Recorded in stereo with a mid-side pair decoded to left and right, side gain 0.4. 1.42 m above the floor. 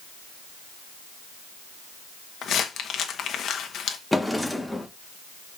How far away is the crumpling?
About 1.5 m.